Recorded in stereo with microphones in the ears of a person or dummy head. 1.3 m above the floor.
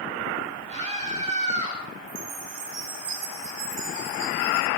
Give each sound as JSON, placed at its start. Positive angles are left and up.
{"t": 0.7, "sound": "a scream", "side_deg": -40, "distance_m": 10.0}
{"t": 2.1, "sound": "a chime", "side_deg": -75, "distance_m": 8.5}